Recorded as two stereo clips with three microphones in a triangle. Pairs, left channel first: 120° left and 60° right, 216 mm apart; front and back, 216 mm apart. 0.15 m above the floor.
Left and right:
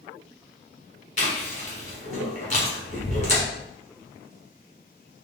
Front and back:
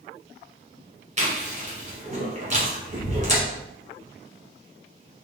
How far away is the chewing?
About 1.6 m.